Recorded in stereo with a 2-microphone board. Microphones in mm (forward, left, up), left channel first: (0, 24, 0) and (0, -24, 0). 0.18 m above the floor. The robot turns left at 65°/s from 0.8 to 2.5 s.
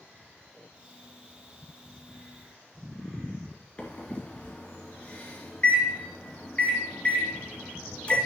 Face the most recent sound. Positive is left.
turn(degrees=25)  # may be behind; listen again after turning